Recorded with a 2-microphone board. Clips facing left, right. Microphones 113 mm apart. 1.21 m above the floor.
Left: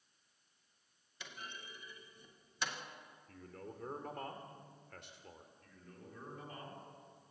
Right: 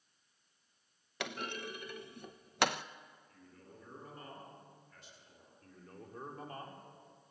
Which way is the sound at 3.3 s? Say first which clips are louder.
Left 12 dB; 65° left (ahead or behind).